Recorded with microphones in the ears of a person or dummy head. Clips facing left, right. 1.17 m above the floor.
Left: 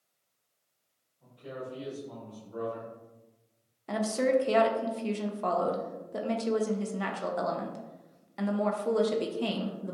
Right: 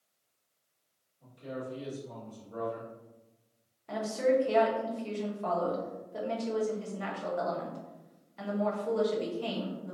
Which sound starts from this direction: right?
A man speaking, at 1.2 s.